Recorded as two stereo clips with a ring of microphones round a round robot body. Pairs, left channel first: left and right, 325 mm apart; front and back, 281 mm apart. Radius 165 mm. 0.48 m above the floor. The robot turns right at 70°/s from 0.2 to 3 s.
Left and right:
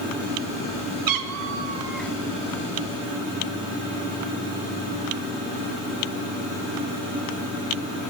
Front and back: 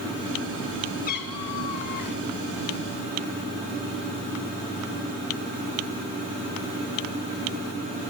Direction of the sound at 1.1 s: 65° right.